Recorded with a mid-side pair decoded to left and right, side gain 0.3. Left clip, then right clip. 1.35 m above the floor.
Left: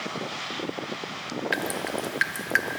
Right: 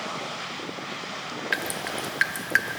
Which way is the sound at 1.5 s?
15° right.